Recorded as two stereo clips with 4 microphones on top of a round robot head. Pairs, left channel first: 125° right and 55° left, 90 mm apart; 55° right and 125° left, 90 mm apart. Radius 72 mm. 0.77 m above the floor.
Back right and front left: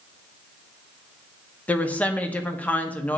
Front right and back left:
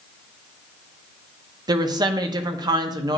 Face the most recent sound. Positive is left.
turn(degrees=165)